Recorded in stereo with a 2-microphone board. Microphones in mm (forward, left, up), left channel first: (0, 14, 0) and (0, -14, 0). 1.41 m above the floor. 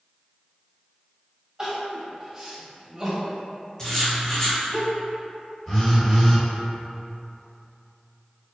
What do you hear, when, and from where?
1.6 s crying: 20° right (ahead or behind), 1.9 m
3.8 s writing: 25° left (ahead or behind), 1.1 m
5.7 s a phone buzzing: 20° left (ahead or behind), 1.3 m